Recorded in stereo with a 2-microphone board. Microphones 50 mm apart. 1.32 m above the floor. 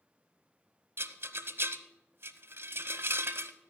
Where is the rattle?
50° right (ahead or behind), 0.7 m.